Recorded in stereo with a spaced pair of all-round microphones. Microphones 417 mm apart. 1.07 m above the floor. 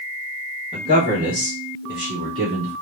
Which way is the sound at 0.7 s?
15° right (ahead or behind).